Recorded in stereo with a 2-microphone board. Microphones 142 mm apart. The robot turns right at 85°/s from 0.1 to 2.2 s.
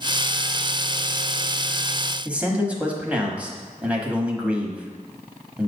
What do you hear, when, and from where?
2.2 s a man speaking: 10° right (ahead or behind), 1.0 m